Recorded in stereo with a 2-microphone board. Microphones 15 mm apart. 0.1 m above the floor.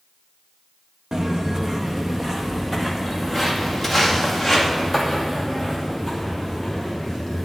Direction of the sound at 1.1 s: 40° right (ahead or behind).